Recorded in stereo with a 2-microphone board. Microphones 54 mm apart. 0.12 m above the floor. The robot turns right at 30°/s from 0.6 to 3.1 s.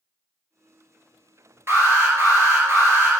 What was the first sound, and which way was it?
An alarm, 105° right.